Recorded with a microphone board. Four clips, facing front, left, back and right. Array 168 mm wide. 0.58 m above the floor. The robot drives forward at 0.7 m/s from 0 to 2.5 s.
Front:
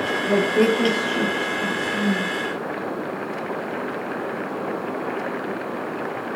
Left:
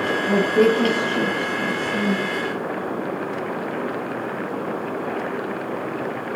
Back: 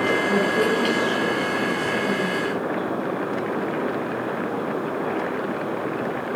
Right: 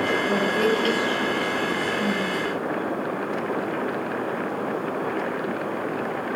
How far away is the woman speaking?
About 9 m.